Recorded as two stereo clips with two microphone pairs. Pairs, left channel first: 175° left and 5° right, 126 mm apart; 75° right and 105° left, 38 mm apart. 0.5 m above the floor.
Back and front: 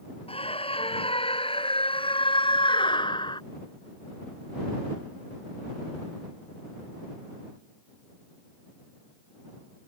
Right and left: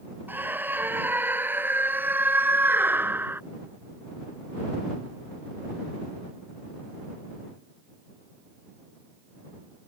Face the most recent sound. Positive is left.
turn(degrees=125)